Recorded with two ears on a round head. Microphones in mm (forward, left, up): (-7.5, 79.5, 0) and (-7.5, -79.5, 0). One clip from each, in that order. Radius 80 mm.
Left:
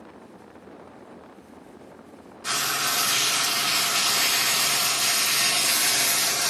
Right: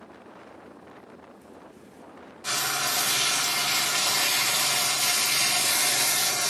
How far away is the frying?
About 1.0 m.